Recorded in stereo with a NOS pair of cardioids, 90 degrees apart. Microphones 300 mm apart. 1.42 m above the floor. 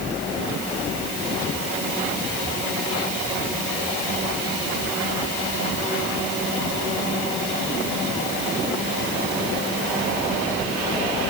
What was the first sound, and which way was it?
Only background noise.